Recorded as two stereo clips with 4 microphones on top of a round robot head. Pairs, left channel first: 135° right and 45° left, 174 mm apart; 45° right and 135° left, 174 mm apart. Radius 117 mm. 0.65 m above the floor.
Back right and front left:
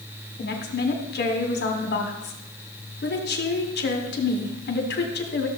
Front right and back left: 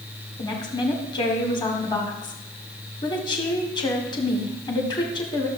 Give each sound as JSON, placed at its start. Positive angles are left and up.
{"t": 0.4, "sound": "a woman speaking", "azimuth_deg": -110, "distance_m": 1.9}